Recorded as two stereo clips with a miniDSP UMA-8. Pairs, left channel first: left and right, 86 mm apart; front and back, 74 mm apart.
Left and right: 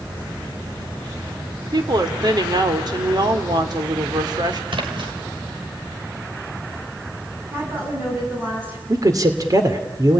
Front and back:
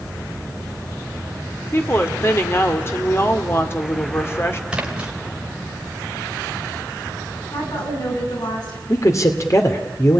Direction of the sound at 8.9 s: 45° right.